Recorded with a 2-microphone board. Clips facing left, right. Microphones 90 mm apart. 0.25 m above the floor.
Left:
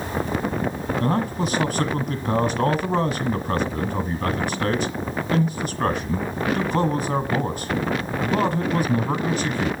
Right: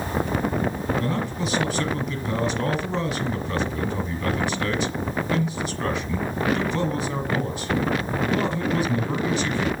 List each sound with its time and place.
1.0 s a man speaking: 45° left (ahead or behind), 1.7 m